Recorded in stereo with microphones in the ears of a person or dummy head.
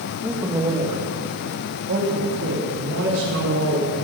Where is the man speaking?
5° right (ahead or behind), 1.6 m; by 3.9 s 80° right, 4 m.